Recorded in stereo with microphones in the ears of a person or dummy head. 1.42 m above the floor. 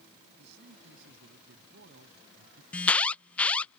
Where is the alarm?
10° left (ahead or behind).